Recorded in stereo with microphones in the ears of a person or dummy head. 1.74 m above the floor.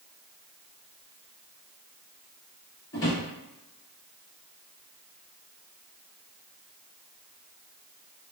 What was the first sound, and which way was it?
A drawer, 20° left (ahead or behind).